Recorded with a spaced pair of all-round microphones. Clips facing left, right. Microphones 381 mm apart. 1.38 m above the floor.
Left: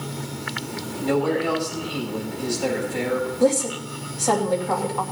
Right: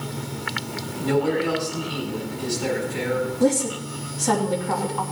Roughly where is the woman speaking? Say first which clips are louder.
Left 1 dB; right.